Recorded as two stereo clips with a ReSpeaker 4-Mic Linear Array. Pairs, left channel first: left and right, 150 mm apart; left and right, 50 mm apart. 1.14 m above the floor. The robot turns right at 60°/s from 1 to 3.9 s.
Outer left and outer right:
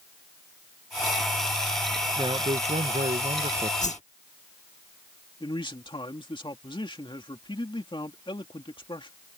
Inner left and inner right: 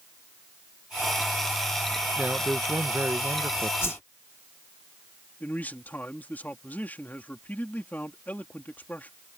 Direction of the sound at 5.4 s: 35° left (ahead or behind).